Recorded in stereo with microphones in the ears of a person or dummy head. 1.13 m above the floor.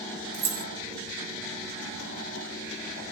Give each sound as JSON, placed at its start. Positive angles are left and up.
{"t": 0.3, "sound": "keys jangling", "side_deg": -55, "distance_m": 0.6}